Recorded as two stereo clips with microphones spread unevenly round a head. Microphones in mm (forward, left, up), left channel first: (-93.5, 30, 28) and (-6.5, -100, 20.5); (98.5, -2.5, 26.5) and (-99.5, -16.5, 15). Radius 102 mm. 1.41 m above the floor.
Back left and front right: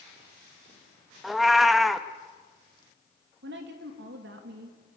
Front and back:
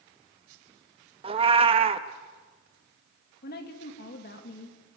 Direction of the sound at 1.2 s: 150° right.